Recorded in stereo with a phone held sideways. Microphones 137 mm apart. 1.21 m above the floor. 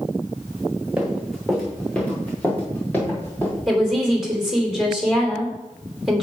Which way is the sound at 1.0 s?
5° right (ahead or behind).